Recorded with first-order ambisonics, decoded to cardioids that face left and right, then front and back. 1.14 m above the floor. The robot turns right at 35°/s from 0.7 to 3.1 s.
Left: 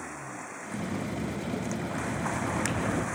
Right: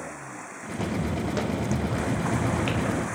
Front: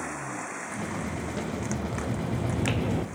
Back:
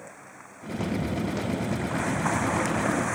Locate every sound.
0.7 s footsteps: 130° right, 4.5 m; by 3.0 s straight ahead, 1.5 m